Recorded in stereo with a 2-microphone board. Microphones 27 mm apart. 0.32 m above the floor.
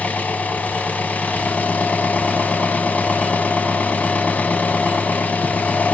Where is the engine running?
75° left (ahead or behind), 0.9 m.